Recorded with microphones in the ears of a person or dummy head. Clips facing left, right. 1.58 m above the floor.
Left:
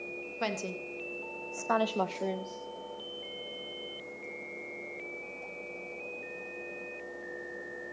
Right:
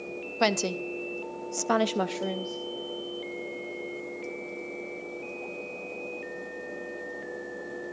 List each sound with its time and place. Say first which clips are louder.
0.4 s a woman speaking: right 9 dB; 75° right (ahead or behind), 1.1 m; by 2.6 s 10° left (ahead or behind), 0.9 m